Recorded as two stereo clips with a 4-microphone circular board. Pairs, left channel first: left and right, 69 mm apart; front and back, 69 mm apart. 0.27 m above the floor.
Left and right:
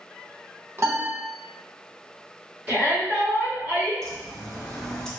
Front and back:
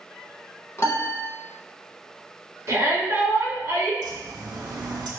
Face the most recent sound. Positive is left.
turn(degrees=170)